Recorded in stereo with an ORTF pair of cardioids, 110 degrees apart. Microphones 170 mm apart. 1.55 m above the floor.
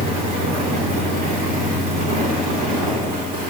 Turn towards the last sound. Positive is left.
turn(degrees=-60)